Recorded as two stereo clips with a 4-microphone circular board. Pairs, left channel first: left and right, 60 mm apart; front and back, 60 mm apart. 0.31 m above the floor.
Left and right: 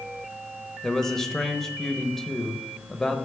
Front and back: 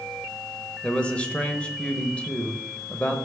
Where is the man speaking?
20° left, 0.9 m.